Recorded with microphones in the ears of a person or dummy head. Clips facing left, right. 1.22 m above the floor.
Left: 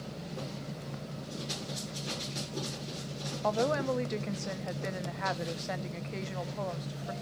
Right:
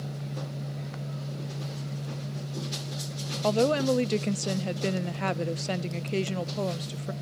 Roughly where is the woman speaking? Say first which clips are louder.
Right 6 dB; right.